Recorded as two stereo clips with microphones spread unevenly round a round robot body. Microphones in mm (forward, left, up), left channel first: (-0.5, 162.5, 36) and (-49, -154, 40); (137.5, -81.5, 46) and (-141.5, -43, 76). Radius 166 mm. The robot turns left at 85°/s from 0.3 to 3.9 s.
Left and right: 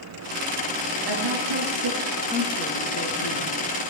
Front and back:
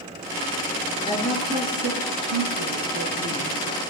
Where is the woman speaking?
75° right, 7.5 m; by 3.6 s 70° left, 7.5 m.